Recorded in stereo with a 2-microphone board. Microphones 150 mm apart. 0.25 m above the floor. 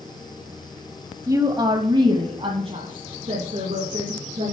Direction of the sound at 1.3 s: 20° right (ahead or behind).